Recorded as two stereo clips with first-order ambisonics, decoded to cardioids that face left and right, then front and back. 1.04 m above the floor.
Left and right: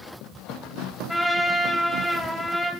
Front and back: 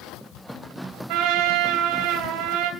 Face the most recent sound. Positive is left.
turn(degrees=175)